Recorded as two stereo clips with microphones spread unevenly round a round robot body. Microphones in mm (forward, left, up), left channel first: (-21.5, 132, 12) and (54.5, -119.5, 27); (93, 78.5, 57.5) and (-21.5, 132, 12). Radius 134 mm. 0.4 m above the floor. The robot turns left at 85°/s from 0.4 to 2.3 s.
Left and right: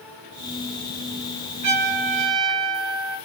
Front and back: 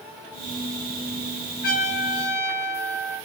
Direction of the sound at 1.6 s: 50° right.